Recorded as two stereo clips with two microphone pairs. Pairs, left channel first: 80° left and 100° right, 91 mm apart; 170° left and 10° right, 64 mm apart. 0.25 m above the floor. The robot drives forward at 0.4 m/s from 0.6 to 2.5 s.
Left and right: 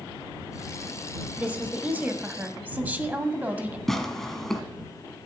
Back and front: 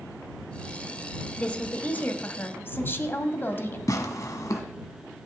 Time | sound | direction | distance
1.4 | a woman speaking | 140° right | 1.1 m
3.9 | tearing paper | 165° left | 1.4 m